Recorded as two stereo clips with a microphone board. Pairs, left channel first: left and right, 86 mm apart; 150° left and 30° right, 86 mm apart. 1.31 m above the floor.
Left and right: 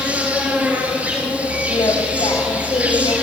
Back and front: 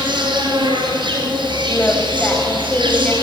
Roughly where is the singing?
Left.